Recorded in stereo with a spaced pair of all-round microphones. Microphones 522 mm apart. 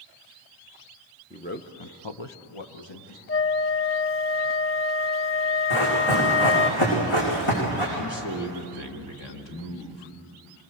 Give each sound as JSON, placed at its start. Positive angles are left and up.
{"t": 1.3, "sound": "a man speaking", "side_deg": 10, "distance_m": 1.4}
{"t": 3.3, "sound": "a flute", "side_deg": 25, "distance_m": 0.7}
{"t": 5.7, "sound": "running footsteps", "side_deg": 65, "distance_m": 8.5}
{"t": 8.0, "sound": "a man speaking", "side_deg": 55, "distance_m": 2.5}